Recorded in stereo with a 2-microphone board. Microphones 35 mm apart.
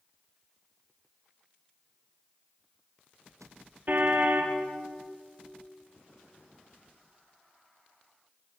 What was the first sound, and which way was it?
A car horn, 55° right (ahead or behind).